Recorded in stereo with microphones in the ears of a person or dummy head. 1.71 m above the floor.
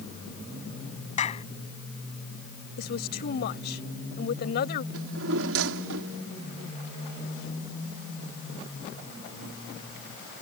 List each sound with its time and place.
1.2 s a clap: 35° left (ahead or behind)
2.8 s a woman speaking: 55° left (ahead or behind)
4.9 s a drawer: 70° right (ahead or behind)